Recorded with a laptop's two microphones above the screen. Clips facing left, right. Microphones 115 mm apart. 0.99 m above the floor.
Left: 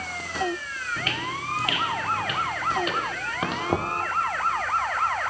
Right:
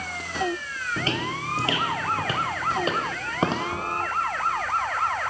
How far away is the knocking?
About 1.3 m.